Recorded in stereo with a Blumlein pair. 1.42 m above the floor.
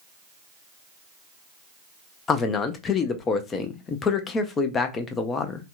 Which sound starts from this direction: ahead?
A man speaking, at 2.3 s.